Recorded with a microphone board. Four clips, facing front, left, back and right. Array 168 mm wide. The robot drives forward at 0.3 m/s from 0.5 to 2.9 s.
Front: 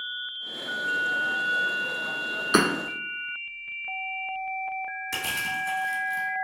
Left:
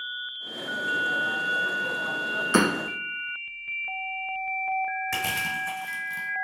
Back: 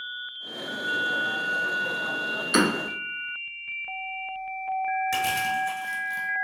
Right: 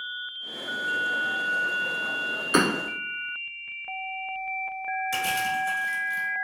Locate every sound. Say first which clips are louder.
2.5 s hammering: even, even; straight ahead, 0.8 m
5.1 s crushing: right 3 dB, back 6 dB; 125° left, 1.4 m